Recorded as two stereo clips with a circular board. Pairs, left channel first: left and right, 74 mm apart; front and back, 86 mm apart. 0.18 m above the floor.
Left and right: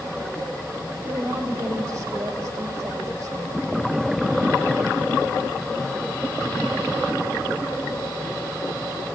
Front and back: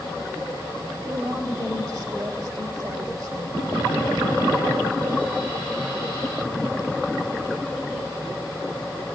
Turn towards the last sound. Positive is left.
turn(degrees=-145)